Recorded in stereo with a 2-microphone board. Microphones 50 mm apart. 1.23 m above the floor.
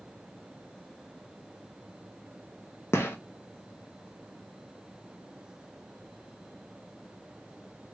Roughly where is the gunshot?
Left.